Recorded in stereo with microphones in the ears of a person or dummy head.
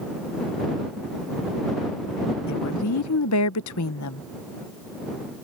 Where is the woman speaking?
85° left.